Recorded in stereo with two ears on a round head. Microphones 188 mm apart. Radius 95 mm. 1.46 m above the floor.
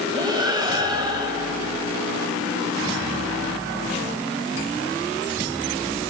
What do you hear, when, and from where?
0.1 s breathing: 20° right (ahead or behind), 6 m